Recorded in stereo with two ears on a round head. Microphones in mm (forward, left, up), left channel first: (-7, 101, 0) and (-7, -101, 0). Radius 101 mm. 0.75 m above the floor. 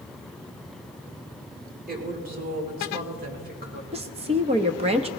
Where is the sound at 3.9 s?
25° right (ahead or behind), 0.8 m.